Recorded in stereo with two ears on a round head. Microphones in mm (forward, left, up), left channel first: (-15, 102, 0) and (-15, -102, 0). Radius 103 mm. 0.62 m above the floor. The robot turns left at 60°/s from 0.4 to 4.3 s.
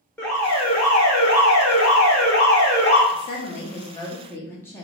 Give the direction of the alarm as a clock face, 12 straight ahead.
6 o'clock.